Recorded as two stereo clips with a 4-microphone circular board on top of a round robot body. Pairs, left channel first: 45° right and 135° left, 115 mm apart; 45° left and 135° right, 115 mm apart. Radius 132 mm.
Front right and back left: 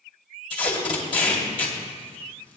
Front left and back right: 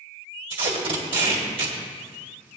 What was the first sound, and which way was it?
Tape being pulled, 90° right.